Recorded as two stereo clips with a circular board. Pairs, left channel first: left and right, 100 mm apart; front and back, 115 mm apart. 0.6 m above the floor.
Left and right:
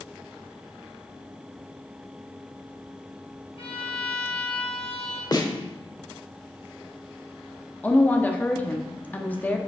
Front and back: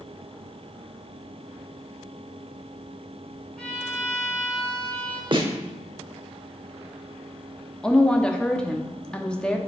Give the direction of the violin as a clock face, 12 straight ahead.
9 o'clock.